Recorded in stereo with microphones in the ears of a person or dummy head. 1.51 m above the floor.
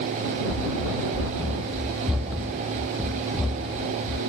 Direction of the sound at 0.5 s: 15° right (ahead or behind).